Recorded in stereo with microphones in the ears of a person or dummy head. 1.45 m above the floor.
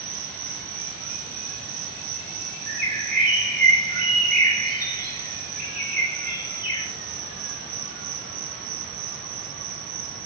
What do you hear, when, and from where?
0.0 s an insect: 60° right (ahead or behind), 1.8 m
2.7 s a bird: 40° right (ahead or behind), 5 m